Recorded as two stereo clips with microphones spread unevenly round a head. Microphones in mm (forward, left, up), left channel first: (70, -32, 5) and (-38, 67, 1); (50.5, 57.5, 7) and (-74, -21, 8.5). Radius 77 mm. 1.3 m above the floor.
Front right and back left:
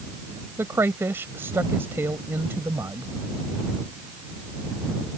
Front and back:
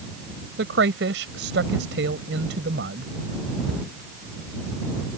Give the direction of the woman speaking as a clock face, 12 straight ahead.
5 o'clock.